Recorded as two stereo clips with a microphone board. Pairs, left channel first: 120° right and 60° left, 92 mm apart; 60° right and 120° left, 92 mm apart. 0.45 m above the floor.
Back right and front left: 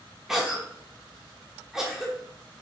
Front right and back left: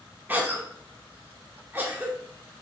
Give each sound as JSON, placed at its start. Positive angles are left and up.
{"t": 0.3, "sound": "a cough", "azimuth_deg": 135, "distance_m": 0.8}